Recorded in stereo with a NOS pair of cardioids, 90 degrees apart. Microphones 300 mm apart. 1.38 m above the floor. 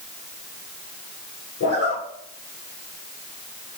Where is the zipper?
55° left, 3 m.